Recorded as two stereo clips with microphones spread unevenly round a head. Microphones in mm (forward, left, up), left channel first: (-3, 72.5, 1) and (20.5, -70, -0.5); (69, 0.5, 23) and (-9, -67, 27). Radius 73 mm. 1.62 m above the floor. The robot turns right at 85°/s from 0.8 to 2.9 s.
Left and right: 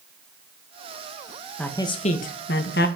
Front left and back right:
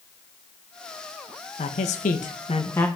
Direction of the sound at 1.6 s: 15° left.